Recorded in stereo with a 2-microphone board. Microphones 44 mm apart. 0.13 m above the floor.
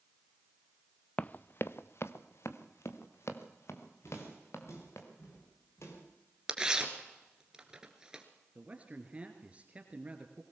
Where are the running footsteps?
30° left (ahead or behind), 0.5 m; by 5.0 s 85° left, 4 m.